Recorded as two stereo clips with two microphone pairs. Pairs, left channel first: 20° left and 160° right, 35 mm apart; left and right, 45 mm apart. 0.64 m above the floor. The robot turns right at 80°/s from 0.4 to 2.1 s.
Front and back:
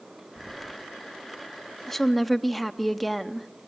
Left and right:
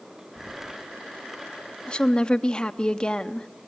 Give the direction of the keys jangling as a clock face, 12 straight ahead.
7 o'clock.